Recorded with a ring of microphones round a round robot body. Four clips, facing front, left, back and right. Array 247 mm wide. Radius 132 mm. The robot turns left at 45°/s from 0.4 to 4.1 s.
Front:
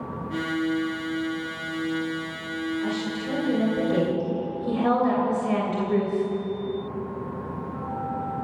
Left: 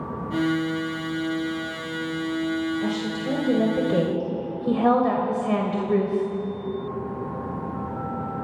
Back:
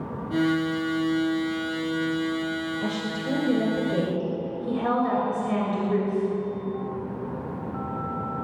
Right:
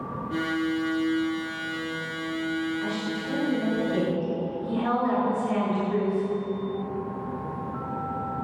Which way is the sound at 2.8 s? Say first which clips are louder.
Left 3 dB, front 1 dB; 140° left.